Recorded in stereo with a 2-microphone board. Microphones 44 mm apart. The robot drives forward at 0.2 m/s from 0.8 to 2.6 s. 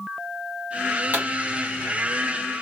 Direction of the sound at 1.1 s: 50° right (ahead or behind).